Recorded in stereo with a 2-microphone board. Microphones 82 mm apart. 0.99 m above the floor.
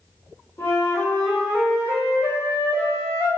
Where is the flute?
30° left (ahead or behind), 1.4 m.